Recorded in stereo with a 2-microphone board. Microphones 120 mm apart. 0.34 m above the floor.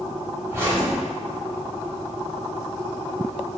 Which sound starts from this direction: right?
A zipper, at 0.5 s.